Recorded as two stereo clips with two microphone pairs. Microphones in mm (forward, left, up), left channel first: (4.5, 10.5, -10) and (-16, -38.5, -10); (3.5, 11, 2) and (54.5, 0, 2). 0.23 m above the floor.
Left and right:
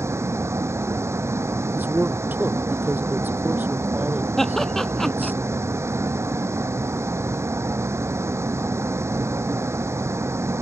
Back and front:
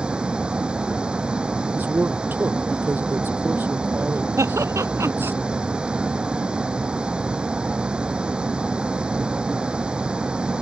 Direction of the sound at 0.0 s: 85° right.